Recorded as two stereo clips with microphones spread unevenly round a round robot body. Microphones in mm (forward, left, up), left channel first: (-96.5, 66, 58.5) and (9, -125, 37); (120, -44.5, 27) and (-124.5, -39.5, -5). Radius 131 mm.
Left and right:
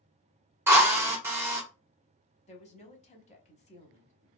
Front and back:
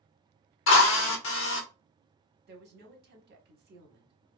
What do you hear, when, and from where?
0.7 s a drill: 10° left, 0.8 m
2.5 s a woman speaking: 170° left, 1.0 m